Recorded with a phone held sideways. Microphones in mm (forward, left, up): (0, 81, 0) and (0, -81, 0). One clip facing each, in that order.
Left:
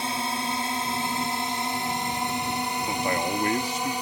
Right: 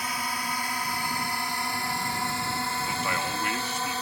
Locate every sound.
0.0 s a drone: 25° left (ahead or behind); by 4.0 s 15° left (ahead or behind)
2.9 s a man speaking: 35° left (ahead or behind)